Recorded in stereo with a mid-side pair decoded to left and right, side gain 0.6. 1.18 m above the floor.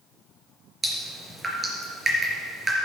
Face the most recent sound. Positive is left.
turn(degrees=-25)